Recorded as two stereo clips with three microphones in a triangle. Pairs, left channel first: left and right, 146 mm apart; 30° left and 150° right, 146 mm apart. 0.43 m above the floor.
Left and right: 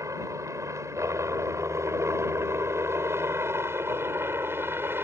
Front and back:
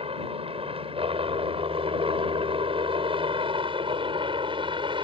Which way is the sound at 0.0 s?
145° right.